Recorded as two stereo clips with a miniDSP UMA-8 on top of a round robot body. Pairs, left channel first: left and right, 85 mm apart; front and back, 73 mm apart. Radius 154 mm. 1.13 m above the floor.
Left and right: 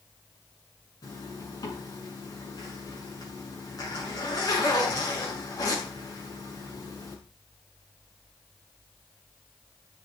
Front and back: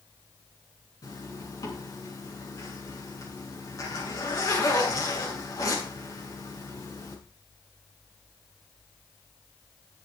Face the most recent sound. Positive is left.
turn(degrees=40)